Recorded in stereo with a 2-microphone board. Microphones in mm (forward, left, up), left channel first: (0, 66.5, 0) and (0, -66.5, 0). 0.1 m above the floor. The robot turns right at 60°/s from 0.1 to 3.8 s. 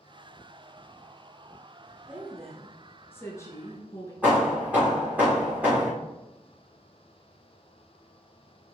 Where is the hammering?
10° right (ahead or behind), 2.5 m.